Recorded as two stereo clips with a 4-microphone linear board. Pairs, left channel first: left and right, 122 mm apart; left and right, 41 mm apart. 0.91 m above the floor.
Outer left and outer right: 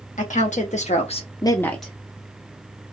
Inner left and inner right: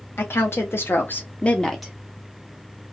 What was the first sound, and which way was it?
A woman speaking, 70° left (ahead or behind).